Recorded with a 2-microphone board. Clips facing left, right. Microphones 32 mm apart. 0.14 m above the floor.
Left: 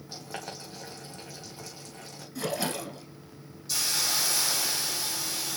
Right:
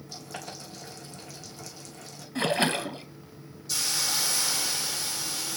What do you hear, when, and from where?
0.1 s boiling: 30° left (ahead or behind), 3.5 m
2.4 s a splash: 50° right (ahead or behind), 0.8 m
3.7 s a hiss: 5° left (ahead or behind), 4 m